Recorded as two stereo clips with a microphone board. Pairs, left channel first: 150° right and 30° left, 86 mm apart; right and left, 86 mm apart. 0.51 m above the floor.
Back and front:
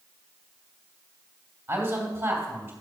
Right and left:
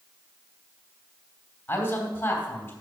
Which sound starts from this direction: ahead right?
A man speaking, at 1.7 s.